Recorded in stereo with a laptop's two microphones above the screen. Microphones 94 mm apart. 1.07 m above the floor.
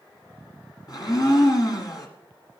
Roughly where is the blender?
Left.